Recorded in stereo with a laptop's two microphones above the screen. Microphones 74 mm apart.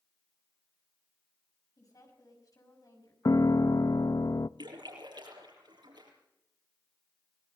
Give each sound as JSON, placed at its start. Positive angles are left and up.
{"t": 1.8, "sound": "a woman speaking", "side_deg": 55, "distance_m": 5.5}
{"t": 3.2, "sound": "a piano", "side_deg": 50, "distance_m": 0.5}
{"t": 4.6, "sound": "a splash", "side_deg": -85, "distance_m": 6.0}